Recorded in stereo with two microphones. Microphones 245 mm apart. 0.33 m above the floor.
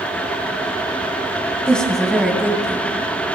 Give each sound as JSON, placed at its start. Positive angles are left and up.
{"t": 1.7, "sound": "a woman speaking", "side_deg": 5, "distance_m": 1.7}